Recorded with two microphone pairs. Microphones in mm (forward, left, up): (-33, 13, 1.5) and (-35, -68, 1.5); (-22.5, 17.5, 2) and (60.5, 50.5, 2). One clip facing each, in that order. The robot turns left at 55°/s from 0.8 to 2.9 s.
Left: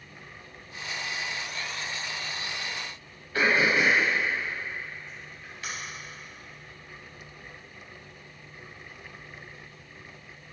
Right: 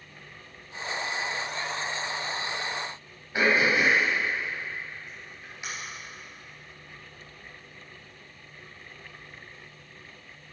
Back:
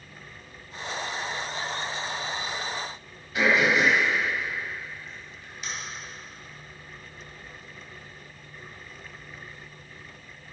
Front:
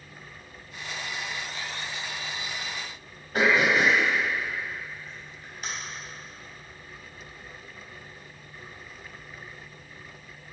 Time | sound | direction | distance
3.3 | throat clearing | 20° right | 4 m